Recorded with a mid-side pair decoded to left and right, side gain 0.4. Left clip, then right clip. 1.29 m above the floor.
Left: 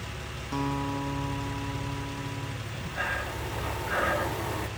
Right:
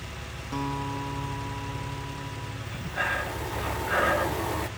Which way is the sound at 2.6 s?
30° right.